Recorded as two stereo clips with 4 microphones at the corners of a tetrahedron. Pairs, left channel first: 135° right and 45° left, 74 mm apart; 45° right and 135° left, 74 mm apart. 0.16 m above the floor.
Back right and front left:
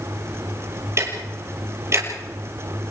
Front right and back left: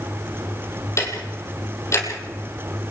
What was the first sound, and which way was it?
Ticking, straight ahead.